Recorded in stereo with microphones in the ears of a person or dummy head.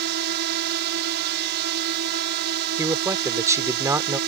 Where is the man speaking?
15° right (ahead or behind).